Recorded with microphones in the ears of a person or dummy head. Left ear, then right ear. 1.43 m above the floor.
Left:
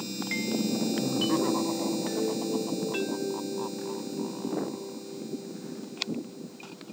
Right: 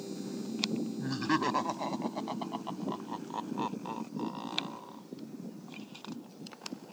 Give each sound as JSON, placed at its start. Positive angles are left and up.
{"t": 1.0, "sound": "laughter", "side_deg": -65}